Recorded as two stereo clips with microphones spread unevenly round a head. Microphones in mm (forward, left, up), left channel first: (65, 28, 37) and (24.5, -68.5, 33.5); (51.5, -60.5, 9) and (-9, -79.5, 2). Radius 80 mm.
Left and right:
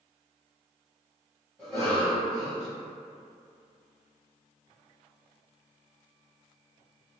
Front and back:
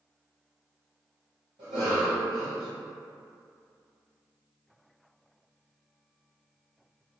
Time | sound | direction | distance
1.6 | a cough | 155° left | 1.3 m